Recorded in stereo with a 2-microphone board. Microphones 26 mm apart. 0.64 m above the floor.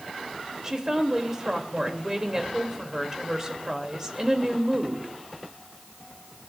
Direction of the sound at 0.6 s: 25° right (ahead or behind).